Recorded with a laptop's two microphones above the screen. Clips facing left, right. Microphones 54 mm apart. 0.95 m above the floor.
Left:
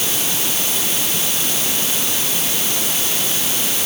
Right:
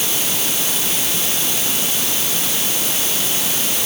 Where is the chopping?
I don't hear chopping.